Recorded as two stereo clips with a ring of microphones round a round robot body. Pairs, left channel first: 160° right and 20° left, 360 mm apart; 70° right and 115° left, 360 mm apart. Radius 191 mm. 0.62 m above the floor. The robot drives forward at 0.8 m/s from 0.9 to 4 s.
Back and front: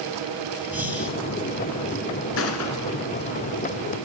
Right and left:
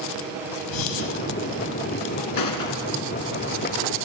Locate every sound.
0.7 s breathing: 65° right, 4 m
2.4 s a gunshot: 100° right, 1.4 m; by 3.0 s 120° right, 1.6 m